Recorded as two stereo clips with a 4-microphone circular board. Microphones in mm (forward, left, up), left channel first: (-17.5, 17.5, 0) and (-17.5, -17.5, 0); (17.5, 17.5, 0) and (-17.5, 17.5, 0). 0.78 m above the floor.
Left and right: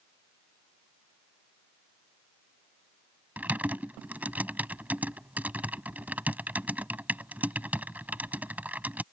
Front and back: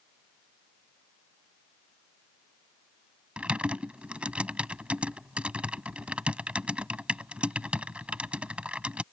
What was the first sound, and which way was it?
Typing on a keyboard, 125° right.